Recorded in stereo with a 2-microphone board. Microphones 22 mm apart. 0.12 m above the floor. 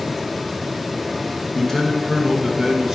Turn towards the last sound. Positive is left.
turn(degrees=-15)  # may be behind; listen again after turning